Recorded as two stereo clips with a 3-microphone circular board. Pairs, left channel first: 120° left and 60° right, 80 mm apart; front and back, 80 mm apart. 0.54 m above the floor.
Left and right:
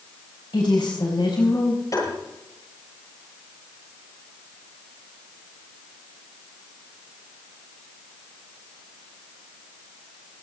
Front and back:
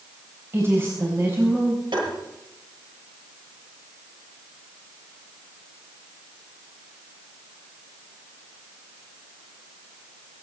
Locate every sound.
0.5 s a woman speaking: 125° left, 3.5 m; by 1.8 s 120° left, 4 m
1.9 s tapping: 165° left, 9.5 m